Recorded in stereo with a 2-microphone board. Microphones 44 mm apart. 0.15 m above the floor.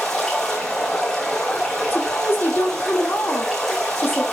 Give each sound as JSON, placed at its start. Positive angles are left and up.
{"t": 0.0, "sound": "running water", "side_deg": 10, "distance_m": 3.5}
{"t": 1.9, "sound": "a woman speaking", "side_deg": 45, "distance_m": 5.5}